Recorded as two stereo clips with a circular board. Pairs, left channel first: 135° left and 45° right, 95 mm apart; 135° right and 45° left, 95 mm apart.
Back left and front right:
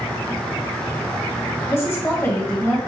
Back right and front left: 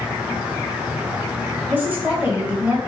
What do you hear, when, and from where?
1.7 s a woman speaking: 100° left, 1.2 m